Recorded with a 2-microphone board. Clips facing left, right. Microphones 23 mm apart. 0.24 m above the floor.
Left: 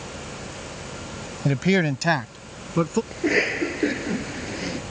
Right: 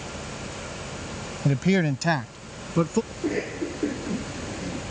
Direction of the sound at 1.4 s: 20° left (ahead or behind).